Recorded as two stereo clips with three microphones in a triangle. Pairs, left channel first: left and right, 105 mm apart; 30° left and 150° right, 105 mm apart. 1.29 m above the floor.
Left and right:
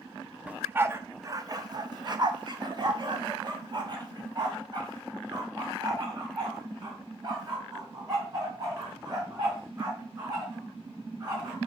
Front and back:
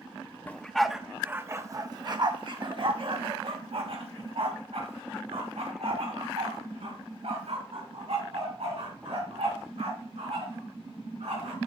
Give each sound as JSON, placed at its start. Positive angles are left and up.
{"t": 0.5, "sound": "a dog barking", "azimuth_deg": -30, "distance_m": 0.8}